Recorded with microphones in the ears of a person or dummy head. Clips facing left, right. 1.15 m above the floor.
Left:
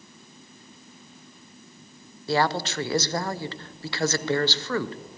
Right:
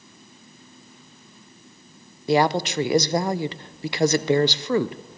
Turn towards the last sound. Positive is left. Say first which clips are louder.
# right 5 dB
turn(degrees=-15)  # may be behind; listen again after turning